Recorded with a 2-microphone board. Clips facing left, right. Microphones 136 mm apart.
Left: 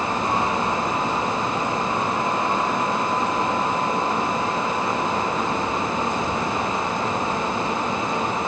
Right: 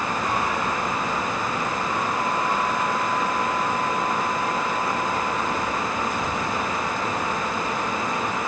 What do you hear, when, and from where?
Only background noise.